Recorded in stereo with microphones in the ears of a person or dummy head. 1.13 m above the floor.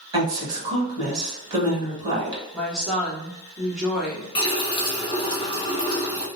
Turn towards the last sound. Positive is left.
turn(degrees=25)  # may be behind; listen again after turning